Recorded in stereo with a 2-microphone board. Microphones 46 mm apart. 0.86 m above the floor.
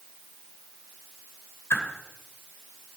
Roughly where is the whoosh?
Left.